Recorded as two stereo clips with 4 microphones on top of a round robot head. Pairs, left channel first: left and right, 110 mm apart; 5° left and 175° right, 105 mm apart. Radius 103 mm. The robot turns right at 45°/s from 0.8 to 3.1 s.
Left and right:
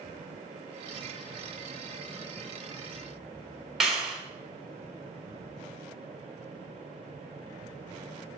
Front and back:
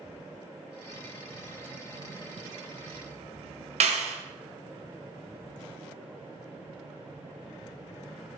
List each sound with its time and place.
3.8 s a clap: 175° right, 1.9 m